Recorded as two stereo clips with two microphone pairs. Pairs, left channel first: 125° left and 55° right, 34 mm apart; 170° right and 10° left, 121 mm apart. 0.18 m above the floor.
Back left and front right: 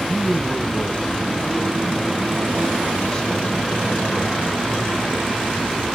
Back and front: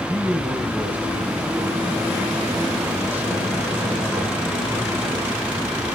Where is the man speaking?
80° left, 1.5 m.